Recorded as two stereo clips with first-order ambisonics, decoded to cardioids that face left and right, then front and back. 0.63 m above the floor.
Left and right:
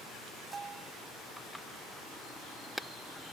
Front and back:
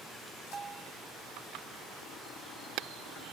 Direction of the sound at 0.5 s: 135° right.